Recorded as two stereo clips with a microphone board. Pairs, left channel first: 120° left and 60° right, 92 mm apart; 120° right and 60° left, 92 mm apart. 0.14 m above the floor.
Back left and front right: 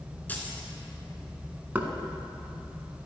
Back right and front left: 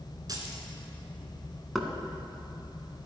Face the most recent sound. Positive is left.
turn(degrees=-30)